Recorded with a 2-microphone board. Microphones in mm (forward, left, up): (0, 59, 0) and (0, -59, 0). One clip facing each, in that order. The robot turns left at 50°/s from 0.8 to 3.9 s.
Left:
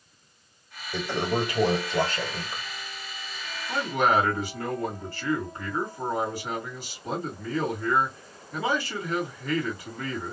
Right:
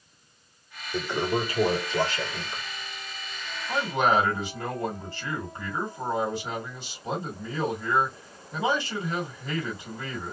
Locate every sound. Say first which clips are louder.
0.9 s a toilet flushing: even; 105° left, 1.6 m; by 2.6 s 20° left, 1.6 m
3.7 s a man speaking: even; 15° right (ahead or behind), 2.0 m; by 10.3 s 25° right (ahead or behind), 2.0 m